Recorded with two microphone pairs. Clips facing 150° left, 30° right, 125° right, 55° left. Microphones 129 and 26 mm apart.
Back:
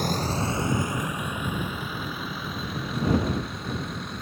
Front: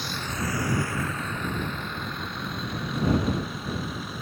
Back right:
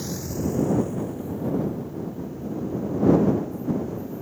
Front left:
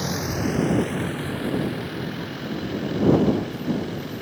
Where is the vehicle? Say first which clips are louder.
Back 5 dB, front left 3 dB; 105° left; by 4.2 s 55° left.